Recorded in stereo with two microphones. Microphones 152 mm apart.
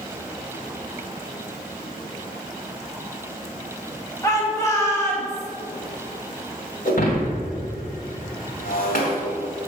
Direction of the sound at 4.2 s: 20° left (ahead or behind).